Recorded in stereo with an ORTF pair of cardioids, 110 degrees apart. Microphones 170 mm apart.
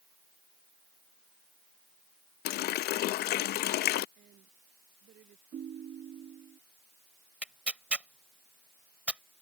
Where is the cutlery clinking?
I don't hear cutlery clinking.